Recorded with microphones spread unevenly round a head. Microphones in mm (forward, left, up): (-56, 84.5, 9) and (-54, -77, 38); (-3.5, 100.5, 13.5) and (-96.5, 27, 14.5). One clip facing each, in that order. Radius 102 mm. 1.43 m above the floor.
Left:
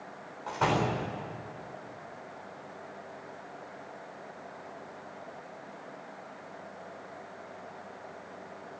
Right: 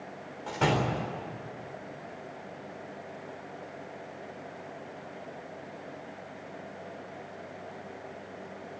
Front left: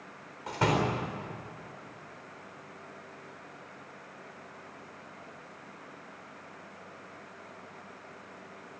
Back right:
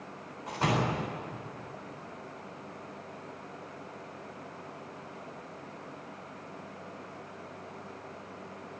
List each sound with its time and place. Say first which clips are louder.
0.5 s a door slam: right 1 dB, front left 2 dB; 20° right, 4 m